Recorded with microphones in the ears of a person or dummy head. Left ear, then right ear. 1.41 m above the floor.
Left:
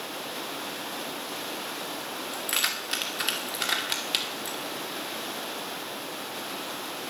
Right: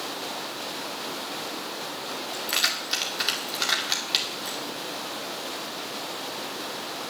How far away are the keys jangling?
About 2 m.